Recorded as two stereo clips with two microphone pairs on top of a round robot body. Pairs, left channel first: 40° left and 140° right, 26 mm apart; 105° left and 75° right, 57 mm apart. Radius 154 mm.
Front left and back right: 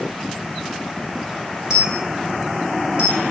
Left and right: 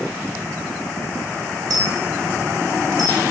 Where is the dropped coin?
55° right, 1.3 m.